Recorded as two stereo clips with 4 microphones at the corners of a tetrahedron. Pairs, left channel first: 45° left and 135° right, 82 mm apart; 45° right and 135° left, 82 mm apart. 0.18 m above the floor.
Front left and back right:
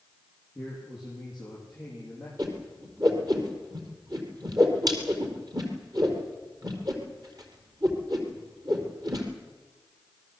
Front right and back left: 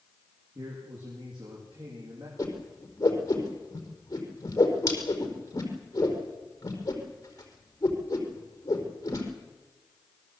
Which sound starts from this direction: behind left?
A man speaking, at 0.6 s.